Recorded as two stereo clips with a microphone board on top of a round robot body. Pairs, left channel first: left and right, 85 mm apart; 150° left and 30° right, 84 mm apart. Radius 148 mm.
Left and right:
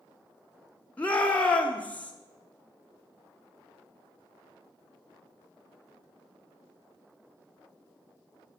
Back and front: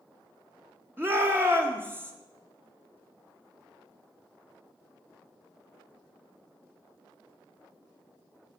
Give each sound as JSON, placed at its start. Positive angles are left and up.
{"t": 1.0, "sound": "a shout", "azimuth_deg": 20, "distance_m": 1.0}